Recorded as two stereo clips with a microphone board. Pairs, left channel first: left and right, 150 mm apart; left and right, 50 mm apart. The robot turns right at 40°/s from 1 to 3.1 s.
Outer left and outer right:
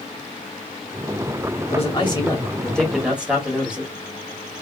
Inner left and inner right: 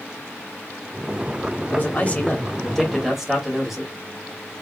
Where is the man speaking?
130° left, 1.9 m; by 3.9 s 175° right, 1.9 m.